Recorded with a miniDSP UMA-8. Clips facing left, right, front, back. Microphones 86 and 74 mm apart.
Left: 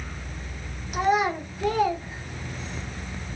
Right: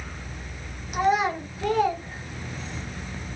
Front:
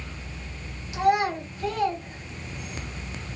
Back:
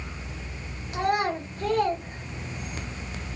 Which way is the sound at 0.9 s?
Straight behind.